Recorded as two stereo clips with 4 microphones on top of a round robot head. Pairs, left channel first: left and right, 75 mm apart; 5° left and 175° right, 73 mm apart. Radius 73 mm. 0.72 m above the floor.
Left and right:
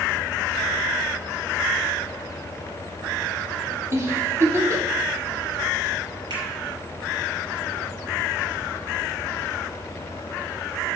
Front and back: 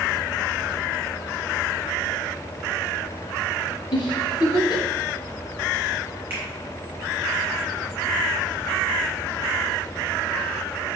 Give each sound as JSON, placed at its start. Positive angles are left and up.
{"t": 3.9, "sound": "a giggle", "azimuth_deg": -40, "distance_m": 1.2}
{"t": 6.3, "sound": "a finger snap", "azimuth_deg": -105, "distance_m": 4.5}